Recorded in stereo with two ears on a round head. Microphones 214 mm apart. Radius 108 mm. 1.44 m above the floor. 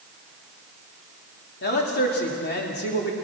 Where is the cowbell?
No cowbell in this recording.